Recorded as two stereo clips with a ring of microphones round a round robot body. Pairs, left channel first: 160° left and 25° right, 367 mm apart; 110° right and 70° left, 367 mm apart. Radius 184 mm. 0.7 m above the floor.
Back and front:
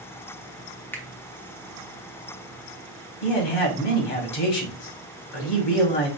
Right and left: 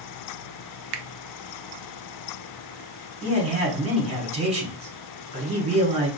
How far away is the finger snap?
About 0.6 m.